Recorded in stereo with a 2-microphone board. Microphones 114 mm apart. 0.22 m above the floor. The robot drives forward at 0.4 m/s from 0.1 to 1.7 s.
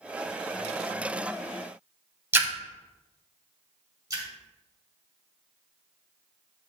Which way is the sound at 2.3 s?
20° right (ahead or behind).